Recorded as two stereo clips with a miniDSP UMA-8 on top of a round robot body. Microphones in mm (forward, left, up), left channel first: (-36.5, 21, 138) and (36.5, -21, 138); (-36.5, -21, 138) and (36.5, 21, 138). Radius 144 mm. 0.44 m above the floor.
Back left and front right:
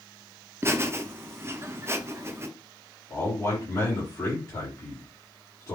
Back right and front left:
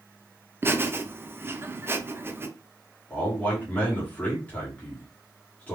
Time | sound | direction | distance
0.6 | laughter | 5° right | 0.8 m
3.1 | a man speaking | 155° left | 1.5 m